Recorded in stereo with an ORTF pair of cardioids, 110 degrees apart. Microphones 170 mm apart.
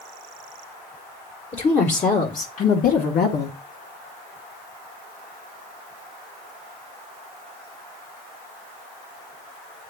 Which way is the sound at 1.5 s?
25° left.